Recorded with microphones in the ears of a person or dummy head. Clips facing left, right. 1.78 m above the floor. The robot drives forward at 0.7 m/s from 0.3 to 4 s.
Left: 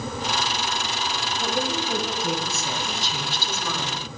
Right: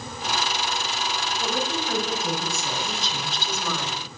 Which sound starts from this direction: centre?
A woman speaking, at 1.4 s.